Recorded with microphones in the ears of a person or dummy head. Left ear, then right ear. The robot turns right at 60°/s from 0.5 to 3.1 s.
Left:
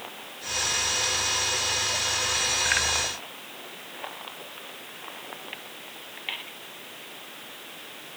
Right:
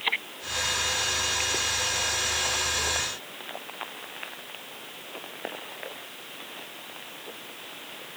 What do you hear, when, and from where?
Only background noise.